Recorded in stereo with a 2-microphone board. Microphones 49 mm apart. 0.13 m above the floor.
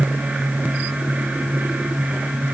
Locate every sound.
Only background noise.